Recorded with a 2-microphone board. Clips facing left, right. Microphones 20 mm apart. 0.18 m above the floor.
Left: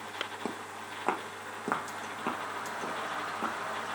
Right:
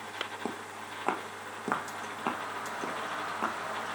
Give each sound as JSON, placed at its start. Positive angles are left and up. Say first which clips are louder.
{"t": 0.5, "sound": "footsteps", "louder": "even", "side_deg": 5, "distance_m": 2.0}